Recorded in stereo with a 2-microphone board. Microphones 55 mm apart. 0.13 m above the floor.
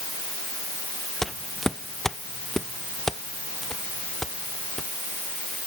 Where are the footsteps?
5° left (ahead or behind); by 4.9 s 10° left (ahead or behind).